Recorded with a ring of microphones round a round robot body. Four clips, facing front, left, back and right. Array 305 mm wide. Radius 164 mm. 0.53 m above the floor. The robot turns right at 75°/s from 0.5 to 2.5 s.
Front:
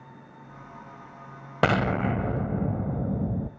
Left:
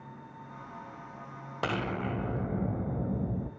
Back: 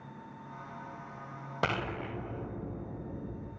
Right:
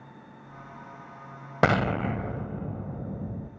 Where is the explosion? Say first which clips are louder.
Right 8 dB, front 10 dB; 55° right, 1.4 m; by 3.5 s 10° left, 1.4 m.